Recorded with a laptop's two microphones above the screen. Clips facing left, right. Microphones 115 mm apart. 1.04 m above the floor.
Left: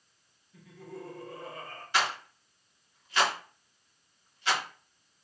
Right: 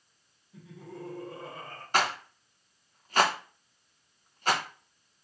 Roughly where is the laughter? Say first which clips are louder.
Even; right.